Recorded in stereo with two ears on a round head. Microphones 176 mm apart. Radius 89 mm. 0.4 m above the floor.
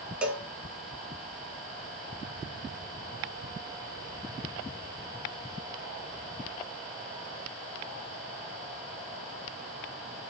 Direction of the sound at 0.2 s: 5° right (ahead or behind).